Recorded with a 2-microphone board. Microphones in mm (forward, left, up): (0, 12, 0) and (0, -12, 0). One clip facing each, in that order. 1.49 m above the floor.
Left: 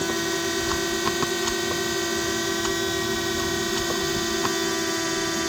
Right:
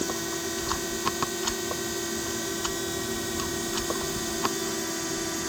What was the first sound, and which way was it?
A drone, 30° left (ahead or behind).